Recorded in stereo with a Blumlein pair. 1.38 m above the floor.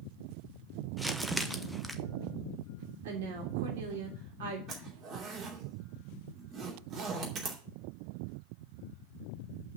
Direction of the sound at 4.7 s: 30° right.